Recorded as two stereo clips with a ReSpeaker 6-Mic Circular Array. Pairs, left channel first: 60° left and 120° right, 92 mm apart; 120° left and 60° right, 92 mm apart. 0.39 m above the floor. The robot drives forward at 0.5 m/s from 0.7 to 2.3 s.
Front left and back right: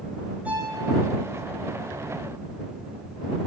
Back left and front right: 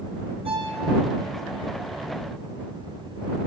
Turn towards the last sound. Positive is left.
turn(degrees=-50)